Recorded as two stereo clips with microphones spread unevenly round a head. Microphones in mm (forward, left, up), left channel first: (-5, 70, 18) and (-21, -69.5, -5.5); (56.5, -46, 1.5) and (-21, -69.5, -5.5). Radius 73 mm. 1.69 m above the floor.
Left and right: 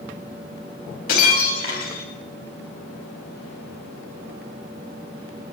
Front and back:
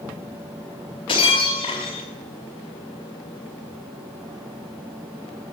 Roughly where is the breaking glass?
Ahead left.